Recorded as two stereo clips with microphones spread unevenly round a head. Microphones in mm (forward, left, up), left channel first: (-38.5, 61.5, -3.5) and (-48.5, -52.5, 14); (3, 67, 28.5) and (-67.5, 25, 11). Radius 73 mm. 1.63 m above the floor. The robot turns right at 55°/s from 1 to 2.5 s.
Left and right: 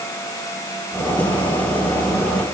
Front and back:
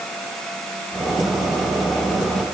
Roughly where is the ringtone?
No ringtone in this recording.